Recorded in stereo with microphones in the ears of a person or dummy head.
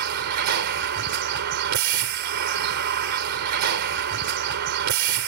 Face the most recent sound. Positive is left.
turn(degrees=-65)  # may be behind; listen again after turning